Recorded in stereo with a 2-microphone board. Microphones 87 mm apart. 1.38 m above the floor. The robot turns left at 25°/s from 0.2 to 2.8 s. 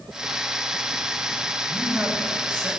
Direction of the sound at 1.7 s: 5° right (ahead or behind).